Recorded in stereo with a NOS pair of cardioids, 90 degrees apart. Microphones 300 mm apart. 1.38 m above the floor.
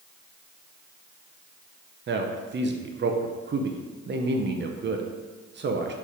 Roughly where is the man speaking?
Ahead right.